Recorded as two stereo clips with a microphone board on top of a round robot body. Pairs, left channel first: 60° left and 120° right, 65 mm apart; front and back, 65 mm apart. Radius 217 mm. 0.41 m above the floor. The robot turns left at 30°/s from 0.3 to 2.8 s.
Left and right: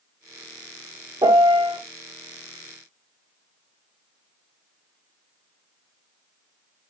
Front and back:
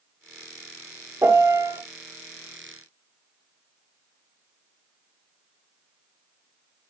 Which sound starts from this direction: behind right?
A piano, at 1.2 s.